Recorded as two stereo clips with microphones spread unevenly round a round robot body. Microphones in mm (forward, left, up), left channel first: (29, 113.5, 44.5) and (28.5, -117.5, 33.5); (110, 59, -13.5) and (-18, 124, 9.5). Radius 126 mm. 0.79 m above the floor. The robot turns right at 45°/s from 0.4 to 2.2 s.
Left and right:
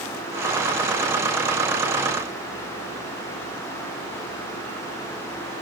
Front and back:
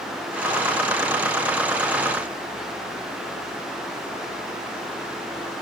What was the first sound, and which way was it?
Only background noise.